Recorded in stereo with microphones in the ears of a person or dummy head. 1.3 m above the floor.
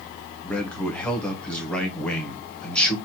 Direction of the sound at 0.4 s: 10° left (ahead or behind).